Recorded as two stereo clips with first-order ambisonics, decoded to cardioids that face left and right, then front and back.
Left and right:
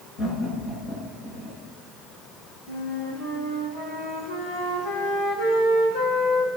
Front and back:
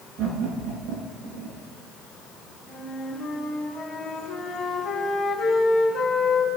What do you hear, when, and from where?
0.2 s laughter: 135° left, 9 m; by 1.6 s 130° left, 8.5 m
2.7 s a flute: 70° left, 6 m